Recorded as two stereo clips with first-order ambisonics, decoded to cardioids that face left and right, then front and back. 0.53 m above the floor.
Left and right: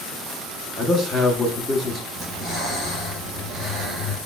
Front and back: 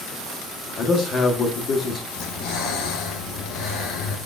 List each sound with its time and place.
0.8 s a man speaking: 10° left, 0.8 m
2.2 s breathing: 5° right, 2 m